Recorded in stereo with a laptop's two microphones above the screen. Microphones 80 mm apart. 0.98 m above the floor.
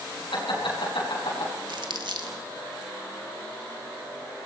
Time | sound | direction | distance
0.3 | laughter | 85° left | 8 m
1.7 | crumpling | 65° right (ahead or behind) | 1.8 m